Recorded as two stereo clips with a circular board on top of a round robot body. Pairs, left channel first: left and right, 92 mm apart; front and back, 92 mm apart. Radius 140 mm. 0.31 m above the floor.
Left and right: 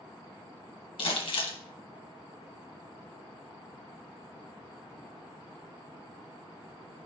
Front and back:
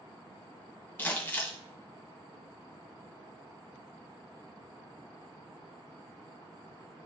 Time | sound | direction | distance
1.0 | crumpling | 70° left | 1.9 m